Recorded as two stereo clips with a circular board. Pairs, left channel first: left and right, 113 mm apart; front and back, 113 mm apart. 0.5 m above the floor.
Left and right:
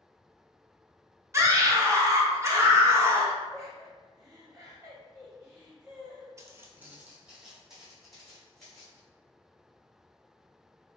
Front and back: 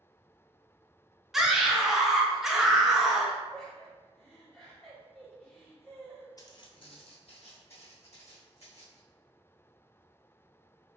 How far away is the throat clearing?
No throat clearing in this recording.